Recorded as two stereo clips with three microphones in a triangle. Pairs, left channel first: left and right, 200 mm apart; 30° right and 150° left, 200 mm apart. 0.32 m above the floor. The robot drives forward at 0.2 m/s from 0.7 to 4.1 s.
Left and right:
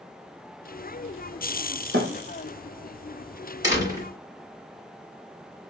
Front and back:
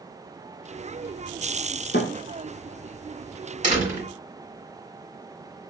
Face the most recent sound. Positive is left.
turn(degrees=-160)